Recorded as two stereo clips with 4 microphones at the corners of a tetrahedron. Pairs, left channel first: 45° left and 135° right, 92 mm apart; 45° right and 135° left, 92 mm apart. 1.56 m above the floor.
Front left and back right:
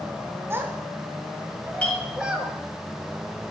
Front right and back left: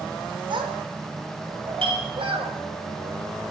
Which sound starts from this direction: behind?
A child speaking, at 0.5 s.